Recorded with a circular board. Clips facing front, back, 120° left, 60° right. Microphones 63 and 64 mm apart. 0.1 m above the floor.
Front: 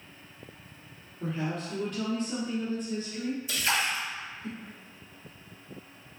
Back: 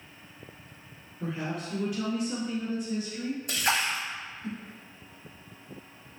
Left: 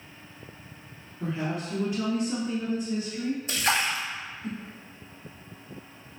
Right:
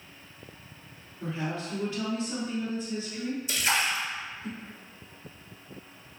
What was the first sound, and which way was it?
A woman speaking, 130° left.